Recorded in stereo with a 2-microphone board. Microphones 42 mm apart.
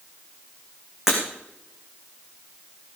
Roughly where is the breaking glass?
Centre.